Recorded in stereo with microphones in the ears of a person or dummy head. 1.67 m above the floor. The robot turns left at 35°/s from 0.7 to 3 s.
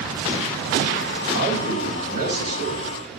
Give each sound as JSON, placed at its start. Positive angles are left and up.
{"t": 1.3, "sound": "a man speaking", "azimuth_deg": -20, "distance_m": 3.0}